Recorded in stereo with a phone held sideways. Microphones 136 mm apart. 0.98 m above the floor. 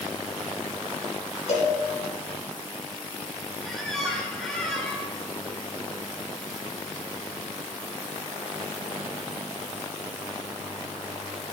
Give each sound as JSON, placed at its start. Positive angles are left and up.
{"t": 1.5, "sound": "a cowbell", "side_deg": 60, "distance_m": 5.0}
{"t": 3.6, "sound": "a squeak", "side_deg": 0, "distance_m": 5.0}